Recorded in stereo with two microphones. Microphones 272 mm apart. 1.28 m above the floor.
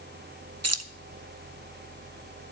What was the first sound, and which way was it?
Keys jangling, 75° right (ahead or behind).